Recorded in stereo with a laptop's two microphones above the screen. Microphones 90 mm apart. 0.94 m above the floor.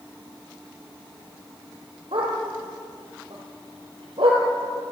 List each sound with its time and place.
2.1 s a dog barking: 85° right, 8 m; by 4.4 s 80° right, 5 m